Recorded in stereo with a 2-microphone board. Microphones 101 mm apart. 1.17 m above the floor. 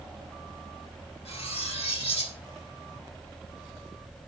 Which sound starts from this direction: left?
Cutlery clinking, at 1.2 s.